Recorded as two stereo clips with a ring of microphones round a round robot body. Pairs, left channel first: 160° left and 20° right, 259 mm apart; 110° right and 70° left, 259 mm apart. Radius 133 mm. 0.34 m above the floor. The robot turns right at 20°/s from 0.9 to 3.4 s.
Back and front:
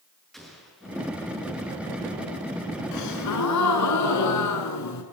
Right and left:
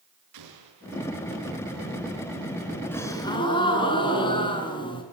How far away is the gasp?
About 5.5 m.